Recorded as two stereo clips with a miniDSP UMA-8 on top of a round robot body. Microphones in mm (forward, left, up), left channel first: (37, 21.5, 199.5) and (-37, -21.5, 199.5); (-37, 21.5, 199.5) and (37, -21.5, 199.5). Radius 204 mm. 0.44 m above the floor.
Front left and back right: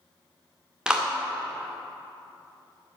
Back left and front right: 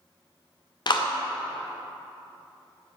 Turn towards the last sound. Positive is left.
turn(degrees=130)